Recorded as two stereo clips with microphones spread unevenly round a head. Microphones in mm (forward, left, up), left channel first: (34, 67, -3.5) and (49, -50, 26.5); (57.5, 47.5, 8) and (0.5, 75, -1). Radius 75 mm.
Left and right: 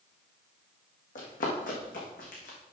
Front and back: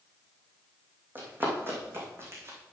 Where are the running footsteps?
95° left, 3.5 m; by 2.6 s 110° left, 3.5 m.